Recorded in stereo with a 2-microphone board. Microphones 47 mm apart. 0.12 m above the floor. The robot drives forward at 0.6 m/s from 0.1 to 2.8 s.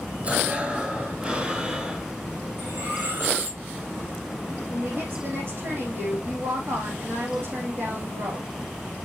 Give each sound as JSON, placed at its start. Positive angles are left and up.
{"t": 0.2, "sound": "breathing", "side_deg": -30, "distance_m": 1.3}
{"t": 2.6, "sound": "cutlery clinking", "side_deg": -45, "distance_m": 4.5}
{"t": 4.7, "sound": "a woman speaking", "side_deg": -55, "distance_m": 4.5}